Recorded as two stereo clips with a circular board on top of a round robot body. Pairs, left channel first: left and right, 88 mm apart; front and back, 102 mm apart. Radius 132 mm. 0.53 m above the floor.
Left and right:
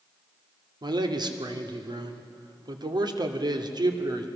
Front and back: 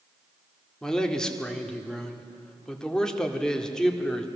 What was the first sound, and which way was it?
A man speaking, 85° right.